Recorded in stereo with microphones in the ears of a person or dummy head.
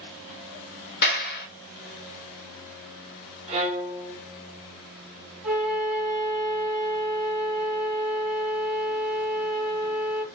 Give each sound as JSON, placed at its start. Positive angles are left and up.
{"t": 1.0, "sound": "a clap", "side_deg": 50, "distance_m": 0.9}
{"t": 3.5, "sound": "a violin", "side_deg": -35, "distance_m": 1.1}
{"t": 5.4, "sound": "a flute", "side_deg": -5, "distance_m": 1.6}